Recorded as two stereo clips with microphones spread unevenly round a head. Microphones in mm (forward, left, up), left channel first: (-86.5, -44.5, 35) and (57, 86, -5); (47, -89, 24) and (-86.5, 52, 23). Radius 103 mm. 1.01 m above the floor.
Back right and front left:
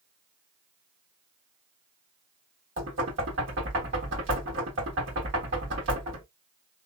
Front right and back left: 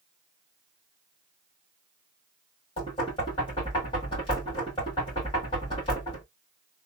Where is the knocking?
20° left, 1.5 m.